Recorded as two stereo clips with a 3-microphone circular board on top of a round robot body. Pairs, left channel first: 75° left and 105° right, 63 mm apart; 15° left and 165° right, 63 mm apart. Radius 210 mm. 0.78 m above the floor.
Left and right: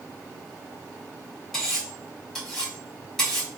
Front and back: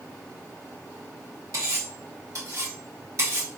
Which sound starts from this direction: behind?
Cutlery clinking, at 1.5 s.